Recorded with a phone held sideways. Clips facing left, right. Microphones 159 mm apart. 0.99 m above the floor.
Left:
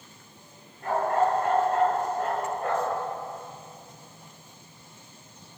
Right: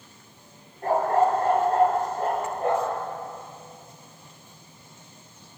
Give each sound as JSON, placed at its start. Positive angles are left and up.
{"t": 0.8, "sound": "a dog barking", "side_deg": -40, "distance_m": 7.5}